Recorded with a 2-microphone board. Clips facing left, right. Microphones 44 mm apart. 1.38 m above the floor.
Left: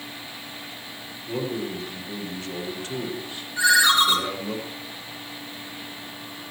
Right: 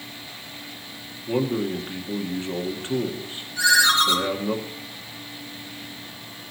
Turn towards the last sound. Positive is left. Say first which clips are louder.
# even
turn(degrees=25)  # may be behind; listen again after turning